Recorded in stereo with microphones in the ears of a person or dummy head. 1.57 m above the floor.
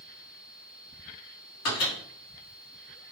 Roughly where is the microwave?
Left.